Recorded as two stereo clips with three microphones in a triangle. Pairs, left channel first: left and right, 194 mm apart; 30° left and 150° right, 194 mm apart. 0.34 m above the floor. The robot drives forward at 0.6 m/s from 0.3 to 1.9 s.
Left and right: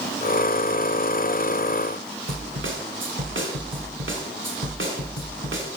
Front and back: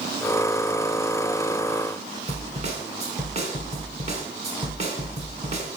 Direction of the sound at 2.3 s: 95° right.